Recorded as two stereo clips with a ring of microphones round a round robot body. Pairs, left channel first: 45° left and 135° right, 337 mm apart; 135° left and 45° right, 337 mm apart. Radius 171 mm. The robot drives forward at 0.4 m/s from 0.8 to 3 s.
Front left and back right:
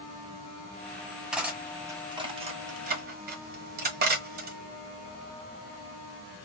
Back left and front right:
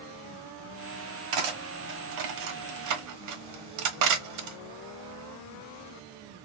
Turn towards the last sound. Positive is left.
turn(degrees=-75)